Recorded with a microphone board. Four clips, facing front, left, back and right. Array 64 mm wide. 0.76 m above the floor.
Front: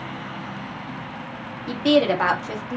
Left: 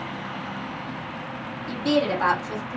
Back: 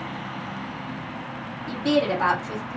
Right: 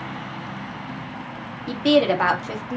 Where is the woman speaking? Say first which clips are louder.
Right 5 dB, front 4 dB; 50° right, 1.4 m.